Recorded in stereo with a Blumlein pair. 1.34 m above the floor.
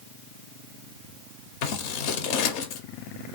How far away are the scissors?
About 0.6 m.